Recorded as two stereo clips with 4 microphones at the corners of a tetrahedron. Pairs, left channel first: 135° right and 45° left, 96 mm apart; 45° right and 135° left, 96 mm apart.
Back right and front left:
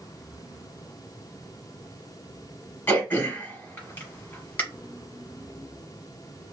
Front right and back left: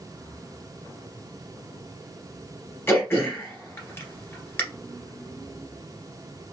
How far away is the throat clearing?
About 1.6 m.